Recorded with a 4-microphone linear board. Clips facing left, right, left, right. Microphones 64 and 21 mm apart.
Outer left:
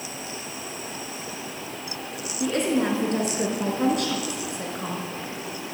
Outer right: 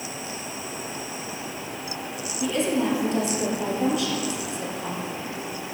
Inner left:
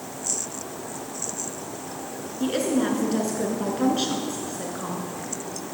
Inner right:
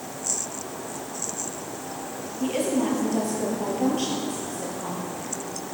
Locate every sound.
2.4 s a woman speaking: 55° left (ahead or behind), 3.5 m